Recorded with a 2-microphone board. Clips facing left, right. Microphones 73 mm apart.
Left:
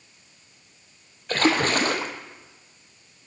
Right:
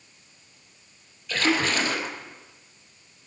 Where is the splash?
50° left (ahead or behind), 1.9 m.